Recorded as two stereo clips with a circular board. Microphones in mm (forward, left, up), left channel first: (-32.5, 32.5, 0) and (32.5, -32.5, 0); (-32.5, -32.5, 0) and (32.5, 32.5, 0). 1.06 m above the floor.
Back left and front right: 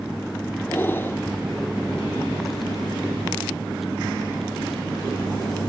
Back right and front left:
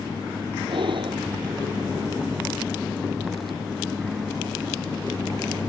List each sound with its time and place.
0.7 s breathing: 70° left